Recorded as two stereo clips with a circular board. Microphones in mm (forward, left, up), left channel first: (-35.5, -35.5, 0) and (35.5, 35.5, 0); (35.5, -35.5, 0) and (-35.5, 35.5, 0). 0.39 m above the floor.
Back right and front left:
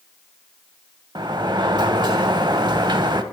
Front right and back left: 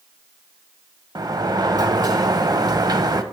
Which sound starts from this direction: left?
A sliding door, at 1.1 s.